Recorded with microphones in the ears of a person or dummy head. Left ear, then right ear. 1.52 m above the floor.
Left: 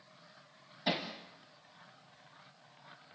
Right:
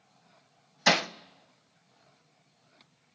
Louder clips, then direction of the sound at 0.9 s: Right 11 dB; 55° right (ahead or behind).